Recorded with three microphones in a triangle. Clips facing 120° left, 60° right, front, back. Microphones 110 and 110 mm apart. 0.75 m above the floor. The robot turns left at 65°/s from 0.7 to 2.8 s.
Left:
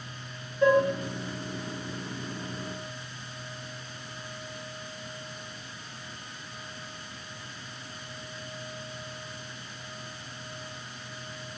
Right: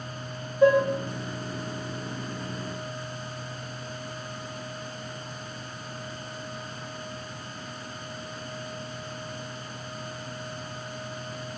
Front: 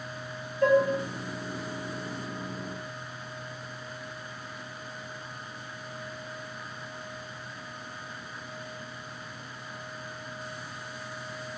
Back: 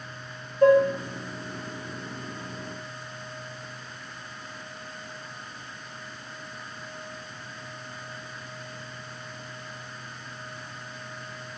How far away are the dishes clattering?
About 1.2 m.